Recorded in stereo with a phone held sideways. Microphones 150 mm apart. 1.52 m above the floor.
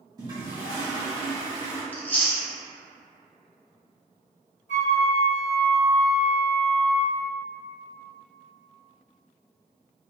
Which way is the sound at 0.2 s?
25° right (ahead or behind).